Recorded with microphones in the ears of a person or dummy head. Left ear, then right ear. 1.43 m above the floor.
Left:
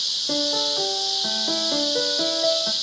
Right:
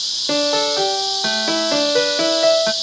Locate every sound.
0.3 s a piano: 65° right (ahead or behind), 0.8 m